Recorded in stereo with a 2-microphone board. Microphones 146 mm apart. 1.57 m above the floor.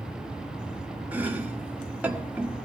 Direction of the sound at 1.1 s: 10° right (ahead or behind).